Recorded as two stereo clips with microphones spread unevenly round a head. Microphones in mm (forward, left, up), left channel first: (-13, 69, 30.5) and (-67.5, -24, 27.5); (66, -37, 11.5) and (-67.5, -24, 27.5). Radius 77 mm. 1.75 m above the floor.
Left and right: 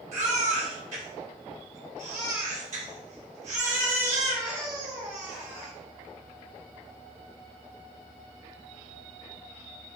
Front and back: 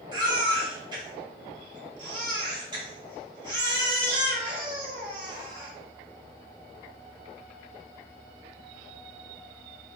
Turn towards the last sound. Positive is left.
turn(degrees=-130)